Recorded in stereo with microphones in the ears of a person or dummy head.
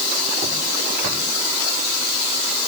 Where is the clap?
I don't hear a clap.